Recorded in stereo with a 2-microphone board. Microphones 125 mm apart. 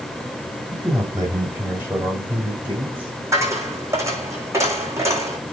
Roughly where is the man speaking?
Right.